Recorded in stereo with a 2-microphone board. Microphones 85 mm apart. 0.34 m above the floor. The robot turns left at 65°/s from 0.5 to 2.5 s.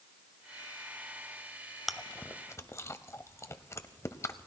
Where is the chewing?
Centre (ahead or behind), 0.7 m; by 4.5 s 35° left (ahead or behind), 0.7 m.